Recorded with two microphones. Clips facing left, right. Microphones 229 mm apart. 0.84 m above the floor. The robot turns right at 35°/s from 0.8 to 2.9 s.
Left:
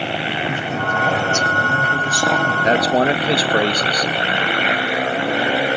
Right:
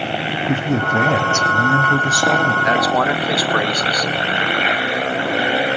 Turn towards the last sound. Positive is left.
turn(degrees=25)  # may be behind; listen again after turning